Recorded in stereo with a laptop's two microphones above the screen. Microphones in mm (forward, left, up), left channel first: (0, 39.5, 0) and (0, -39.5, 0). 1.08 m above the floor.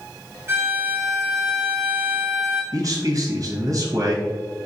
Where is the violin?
35° right (ahead or behind), 0.7 m.